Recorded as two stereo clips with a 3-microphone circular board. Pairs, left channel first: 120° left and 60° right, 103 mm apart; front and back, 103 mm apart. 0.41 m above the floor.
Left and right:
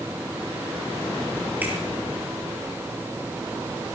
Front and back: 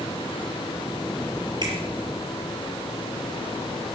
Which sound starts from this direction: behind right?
A finger snap, at 1.6 s.